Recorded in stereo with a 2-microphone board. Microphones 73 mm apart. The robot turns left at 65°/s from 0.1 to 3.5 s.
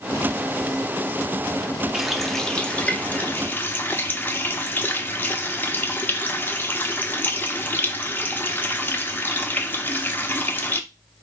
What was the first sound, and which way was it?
A running tap, 5° right (ahead or behind).